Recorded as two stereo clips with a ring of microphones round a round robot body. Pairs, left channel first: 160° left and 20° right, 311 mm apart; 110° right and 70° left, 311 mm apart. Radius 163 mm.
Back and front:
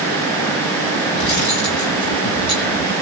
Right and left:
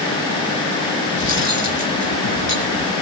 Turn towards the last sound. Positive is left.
turn(degrees=-165)